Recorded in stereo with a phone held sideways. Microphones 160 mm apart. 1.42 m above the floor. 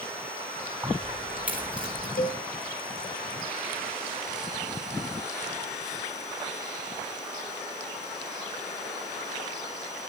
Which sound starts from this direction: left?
A cowbell, at 2.2 s.